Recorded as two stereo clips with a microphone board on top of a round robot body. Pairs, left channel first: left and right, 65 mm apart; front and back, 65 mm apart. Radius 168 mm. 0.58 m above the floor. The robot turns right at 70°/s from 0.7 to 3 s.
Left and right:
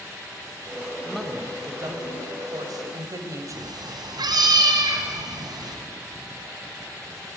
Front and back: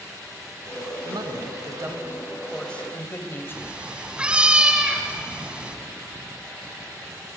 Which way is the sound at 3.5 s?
105° right.